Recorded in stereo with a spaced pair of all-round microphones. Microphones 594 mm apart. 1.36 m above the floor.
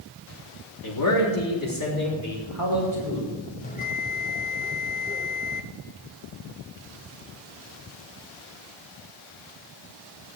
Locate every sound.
0.8 s a man speaking: 35° left (ahead or behind), 3.5 m; by 3.4 s 30° left (ahead or behind), 7 m
3.6 s a bell: 15° left (ahead or behind), 1.1 m